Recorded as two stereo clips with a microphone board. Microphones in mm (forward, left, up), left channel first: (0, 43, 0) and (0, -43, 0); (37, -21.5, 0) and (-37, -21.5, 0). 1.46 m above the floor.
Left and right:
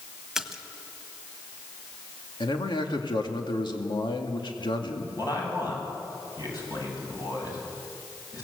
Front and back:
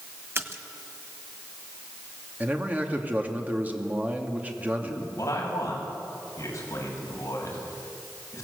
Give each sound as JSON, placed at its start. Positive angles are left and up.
{"t": 0.3, "sound": "a splash", "azimuth_deg": -170, "distance_m": 1.5}
{"t": 2.4, "sound": "a man speaking", "azimuth_deg": 115, "distance_m": 2.5}
{"t": 5.2, "sound": "a man speaking", "azimuth_deg": 45, "distance_m": 7.0}